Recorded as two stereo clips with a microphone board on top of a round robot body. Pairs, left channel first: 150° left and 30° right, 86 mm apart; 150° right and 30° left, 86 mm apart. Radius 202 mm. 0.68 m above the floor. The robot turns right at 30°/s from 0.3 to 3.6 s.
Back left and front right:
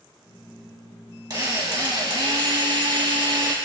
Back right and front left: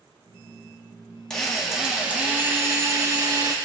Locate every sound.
1.3 s a drill: 70° right, 1.7 m; by 3.5 s straight ahead, 1.7 m